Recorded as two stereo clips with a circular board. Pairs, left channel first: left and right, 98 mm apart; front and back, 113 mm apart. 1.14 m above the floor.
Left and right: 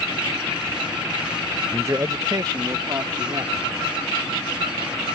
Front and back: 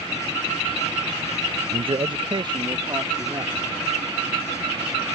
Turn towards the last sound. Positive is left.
turn(degrees=-130)